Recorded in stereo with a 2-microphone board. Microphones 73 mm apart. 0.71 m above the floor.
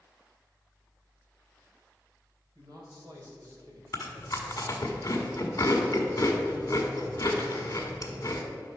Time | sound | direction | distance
2.5 | a man speaking | 60° right (ahead or behind) | 3 m
3.9 | chewing | 45° left (ahead or behind) | 1.6 m